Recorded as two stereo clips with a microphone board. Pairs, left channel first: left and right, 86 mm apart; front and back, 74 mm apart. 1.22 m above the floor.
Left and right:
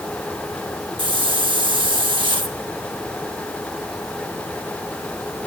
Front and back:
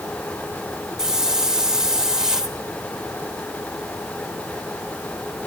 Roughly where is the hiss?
Right.